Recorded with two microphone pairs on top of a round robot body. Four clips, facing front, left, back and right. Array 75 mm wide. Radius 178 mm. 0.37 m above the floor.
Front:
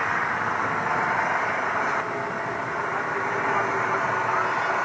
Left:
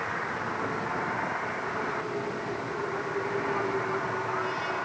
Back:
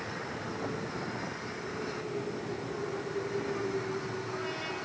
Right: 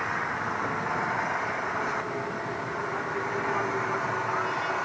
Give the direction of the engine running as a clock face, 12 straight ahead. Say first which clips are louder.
Right 2 dB, front 13 dB; 12 o'clock.